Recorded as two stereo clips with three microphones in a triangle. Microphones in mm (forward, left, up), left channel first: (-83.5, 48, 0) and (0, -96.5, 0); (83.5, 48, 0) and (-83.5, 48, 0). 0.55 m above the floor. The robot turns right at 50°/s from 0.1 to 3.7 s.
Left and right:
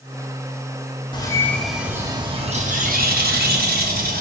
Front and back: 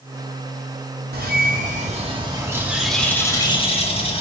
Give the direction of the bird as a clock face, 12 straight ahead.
6 o'clock.